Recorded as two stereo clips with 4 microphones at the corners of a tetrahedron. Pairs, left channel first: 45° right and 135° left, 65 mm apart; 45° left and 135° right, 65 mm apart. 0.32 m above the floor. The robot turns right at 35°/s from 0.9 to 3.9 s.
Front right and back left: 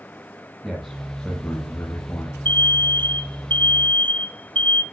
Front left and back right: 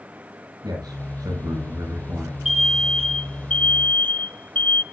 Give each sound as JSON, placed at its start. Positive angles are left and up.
{"t": 0.6, "sound": "a man speaking", "azimuth_deg": -135, "distance_m": 5.5}
{"t": 2.5, "sound": "an alarm", "azimuth_deg": -55, "distance_m": 1.2}